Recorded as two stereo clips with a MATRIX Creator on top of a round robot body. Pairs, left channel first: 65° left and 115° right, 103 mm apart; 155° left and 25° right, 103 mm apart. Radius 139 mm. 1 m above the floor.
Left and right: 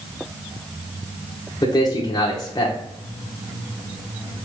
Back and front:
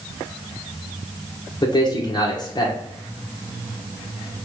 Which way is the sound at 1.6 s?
120° left.